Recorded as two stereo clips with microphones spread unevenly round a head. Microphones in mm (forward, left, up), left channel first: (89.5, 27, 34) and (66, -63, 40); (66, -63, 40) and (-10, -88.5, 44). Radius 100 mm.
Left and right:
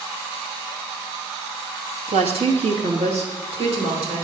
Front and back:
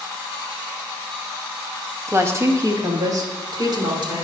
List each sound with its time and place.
2.1 s a woman speaking: 100° right, 1.6 m; by 4.2 s 135° right, 2.5 m